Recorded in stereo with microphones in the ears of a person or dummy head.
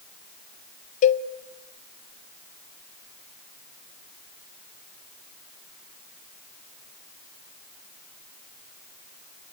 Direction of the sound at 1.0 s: 35° left (ahead or behind).